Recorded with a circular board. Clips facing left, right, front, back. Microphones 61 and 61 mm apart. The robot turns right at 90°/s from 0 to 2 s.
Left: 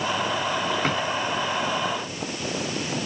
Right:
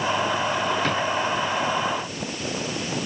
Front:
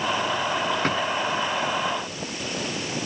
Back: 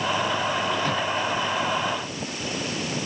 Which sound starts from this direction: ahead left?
A drawer, at 0.8 s.